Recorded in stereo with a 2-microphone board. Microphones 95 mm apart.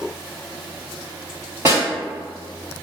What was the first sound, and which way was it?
A snare drum, 30° right (ahead or behind).